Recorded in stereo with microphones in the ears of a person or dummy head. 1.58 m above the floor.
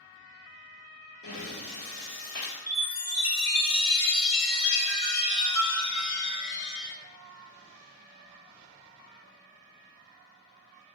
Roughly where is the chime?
Left.